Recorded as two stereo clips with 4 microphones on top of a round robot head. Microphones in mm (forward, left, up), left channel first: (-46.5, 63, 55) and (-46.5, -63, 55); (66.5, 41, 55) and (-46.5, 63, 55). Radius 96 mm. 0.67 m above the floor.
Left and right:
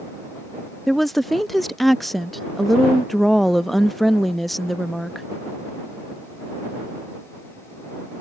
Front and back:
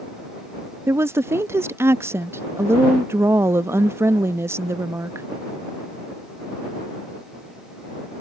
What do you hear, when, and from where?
0.9 s a woman speaking: 175° left